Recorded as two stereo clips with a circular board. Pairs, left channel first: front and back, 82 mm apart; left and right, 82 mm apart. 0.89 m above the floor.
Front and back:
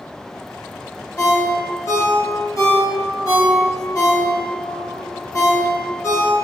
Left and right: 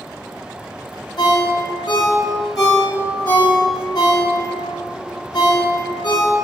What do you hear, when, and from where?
1.2 s a ringtone: 55° left, 0.9 m